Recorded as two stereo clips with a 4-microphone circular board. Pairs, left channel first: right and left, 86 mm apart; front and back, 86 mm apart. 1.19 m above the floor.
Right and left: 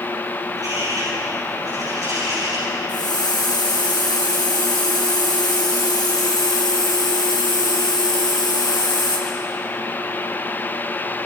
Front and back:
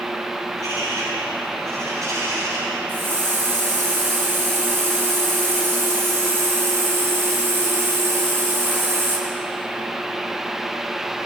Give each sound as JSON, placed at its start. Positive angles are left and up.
{"t": 0.5, "sound": "a bird", "azimuth_deg": 130, "distance_m": 9.5}
{"t": 2.9, "sound": "a hiss", "azimuth_deg": -120, "distance_m": 3.5}